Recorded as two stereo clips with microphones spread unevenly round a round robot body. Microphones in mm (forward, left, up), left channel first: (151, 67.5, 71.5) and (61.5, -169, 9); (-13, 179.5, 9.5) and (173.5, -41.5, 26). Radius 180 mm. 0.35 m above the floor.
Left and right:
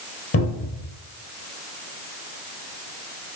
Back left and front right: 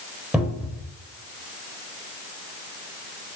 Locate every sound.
0.3 s a cupboard door: 40° left, 4 m